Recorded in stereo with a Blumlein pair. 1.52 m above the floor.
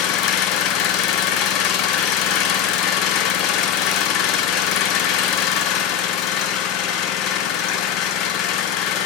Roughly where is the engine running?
Ahead left.